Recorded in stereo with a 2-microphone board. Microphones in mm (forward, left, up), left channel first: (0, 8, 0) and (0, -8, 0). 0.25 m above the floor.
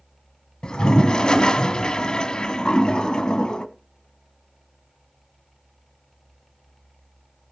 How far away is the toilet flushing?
About 1.4 m.